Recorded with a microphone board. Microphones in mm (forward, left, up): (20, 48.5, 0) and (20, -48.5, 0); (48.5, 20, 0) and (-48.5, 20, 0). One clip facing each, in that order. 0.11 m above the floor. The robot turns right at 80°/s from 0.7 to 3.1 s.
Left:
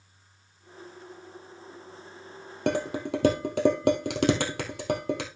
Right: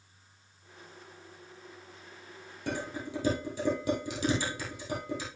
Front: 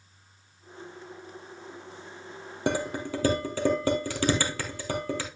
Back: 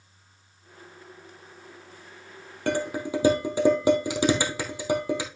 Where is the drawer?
No drawer in this recording.